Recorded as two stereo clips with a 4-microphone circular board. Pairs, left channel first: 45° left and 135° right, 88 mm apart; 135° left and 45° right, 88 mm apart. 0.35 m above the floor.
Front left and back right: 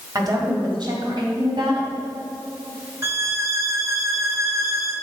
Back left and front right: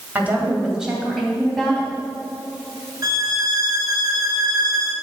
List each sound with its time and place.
0.1 s a woman speaking: 110° right, 2 m; by 1.9 s 145° right, 3 m
3.0 s a violin: 85° right, 1.5 m